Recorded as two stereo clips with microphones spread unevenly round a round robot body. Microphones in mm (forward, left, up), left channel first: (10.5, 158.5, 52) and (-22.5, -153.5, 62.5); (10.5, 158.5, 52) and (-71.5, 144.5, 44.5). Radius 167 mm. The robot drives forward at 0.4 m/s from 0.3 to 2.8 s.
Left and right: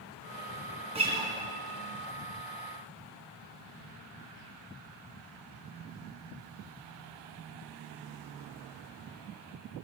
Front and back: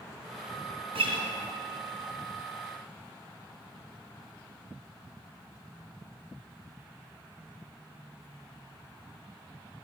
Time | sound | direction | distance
0.9 | a guitar | 170° right | 2 m